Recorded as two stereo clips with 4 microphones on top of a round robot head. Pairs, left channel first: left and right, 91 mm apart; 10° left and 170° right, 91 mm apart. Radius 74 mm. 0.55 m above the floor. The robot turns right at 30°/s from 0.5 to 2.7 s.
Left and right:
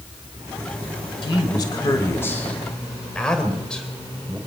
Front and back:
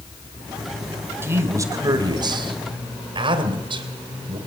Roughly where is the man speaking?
Behind left.